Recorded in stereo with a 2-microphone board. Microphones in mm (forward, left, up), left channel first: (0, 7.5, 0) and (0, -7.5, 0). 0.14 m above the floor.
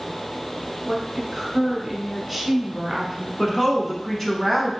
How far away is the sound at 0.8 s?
About 1.2 m.